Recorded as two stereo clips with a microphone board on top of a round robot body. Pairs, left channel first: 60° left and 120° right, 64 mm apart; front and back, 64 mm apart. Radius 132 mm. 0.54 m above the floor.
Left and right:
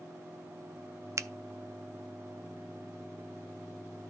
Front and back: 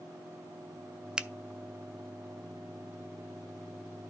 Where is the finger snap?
105° right, 0.6 m.